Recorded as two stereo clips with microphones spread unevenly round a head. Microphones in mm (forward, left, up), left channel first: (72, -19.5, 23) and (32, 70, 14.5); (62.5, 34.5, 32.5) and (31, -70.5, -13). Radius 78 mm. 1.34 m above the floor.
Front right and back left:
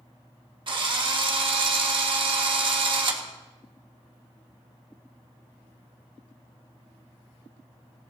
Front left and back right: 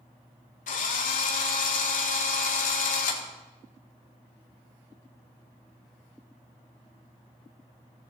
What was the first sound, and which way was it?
A drill, 85° left.